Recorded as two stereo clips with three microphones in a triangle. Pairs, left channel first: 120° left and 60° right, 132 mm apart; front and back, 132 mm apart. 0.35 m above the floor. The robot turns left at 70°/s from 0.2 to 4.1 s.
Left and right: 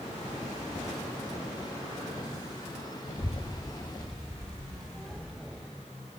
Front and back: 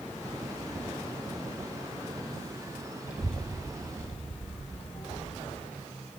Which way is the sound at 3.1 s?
105° left.